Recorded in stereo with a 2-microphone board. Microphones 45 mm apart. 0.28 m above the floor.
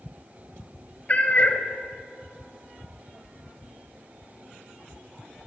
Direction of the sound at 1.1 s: 30° left (ahead or behind).